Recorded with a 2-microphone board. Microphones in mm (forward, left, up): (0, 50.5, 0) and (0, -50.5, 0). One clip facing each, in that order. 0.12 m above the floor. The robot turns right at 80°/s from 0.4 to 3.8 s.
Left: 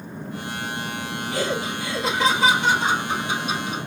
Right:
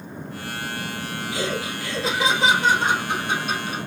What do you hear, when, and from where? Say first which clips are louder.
1.3 s laughter: left 2 dB; 120° left, 2 m; by 3.8 s 40° right, 2 m